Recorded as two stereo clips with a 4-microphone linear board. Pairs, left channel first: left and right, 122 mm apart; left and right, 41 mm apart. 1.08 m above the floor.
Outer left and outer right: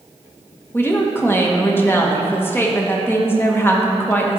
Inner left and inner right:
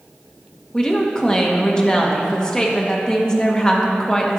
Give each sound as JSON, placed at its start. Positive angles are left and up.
{"t": 0.7, "sound": "a woman speaking", "side_deg": 20, "distance_m": 1.0}